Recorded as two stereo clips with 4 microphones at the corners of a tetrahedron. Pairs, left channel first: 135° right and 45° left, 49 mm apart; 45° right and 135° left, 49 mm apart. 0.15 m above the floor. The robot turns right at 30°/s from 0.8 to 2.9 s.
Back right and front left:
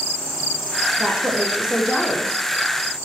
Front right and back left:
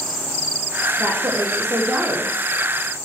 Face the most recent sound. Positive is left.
turn(degrees=165)